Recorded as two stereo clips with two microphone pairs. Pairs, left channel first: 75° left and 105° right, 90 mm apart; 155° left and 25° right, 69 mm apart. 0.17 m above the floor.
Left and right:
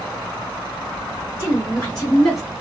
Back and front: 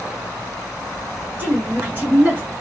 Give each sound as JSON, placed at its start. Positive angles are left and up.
{"t": 1.4, "sound": "a woman speaking", "azimuth_deg": 15, "distance_m": 1.6}